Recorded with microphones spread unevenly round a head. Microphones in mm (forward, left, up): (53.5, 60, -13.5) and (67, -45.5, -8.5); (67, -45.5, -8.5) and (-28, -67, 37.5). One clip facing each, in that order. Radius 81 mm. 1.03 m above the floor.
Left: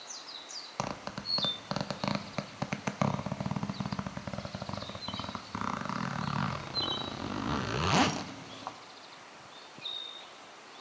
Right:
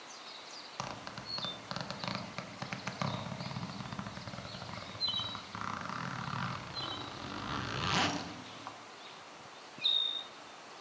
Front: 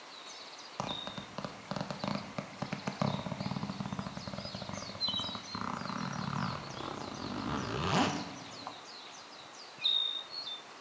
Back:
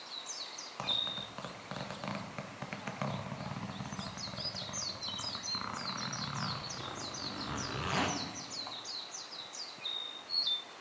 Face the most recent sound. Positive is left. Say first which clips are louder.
# left 6 dB, front 3 dB
turn(degrees=60)